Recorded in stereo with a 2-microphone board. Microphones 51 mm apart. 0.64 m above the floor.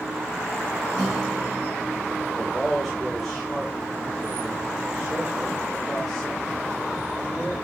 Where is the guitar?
10° left (ahead or behind), 5 m.